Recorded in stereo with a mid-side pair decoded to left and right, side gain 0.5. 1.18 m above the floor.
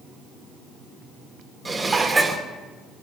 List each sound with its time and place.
1.6 s dishes clattering: 25° right, 2 m